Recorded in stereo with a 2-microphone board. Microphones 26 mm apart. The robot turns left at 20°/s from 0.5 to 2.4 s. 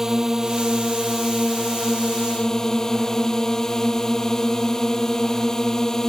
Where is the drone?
155° right; by 6.1 s 165° left.